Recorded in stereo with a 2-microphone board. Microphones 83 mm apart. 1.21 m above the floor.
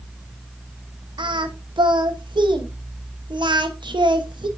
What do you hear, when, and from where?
1.2 s singing: 60° right (ahead or behind), 1.0 m